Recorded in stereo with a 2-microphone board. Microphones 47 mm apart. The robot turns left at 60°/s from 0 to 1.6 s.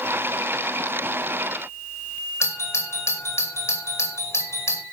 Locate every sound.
2.4 s a doorbell: 75° left (ahead or behind), 5 m